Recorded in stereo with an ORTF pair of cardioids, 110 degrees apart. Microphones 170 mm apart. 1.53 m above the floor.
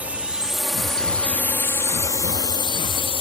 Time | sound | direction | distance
0.0 | a drone | 10° right | ?